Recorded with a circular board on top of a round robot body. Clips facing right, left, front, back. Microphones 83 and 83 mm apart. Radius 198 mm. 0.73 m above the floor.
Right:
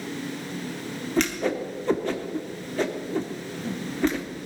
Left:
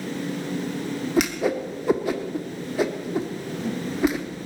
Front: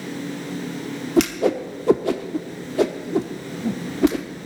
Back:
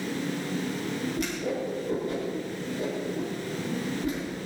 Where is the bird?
No bird in this recording.